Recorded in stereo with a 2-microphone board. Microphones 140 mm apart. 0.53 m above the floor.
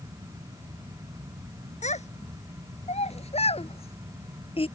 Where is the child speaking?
55° left (ahead or behind); by 4.7 s 40° left (ahead or behind).